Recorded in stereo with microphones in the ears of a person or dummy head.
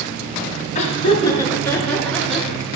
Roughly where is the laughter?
Left.